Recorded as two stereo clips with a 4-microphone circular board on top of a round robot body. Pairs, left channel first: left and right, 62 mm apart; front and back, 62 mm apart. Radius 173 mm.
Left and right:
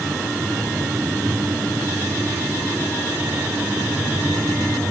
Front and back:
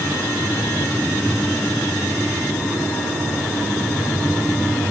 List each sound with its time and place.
Only background noise.